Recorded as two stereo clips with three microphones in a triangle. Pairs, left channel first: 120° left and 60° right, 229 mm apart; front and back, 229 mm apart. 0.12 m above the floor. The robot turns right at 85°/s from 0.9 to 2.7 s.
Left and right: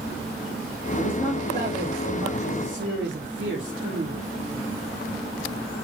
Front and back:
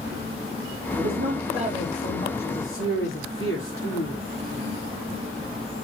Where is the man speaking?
170° right, 5 m; by 4.2 s 20° right, 5 m.